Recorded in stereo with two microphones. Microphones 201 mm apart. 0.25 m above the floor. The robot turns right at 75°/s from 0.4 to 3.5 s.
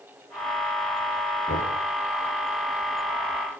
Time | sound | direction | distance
1.5 | knocking | 80° left | 6.5 m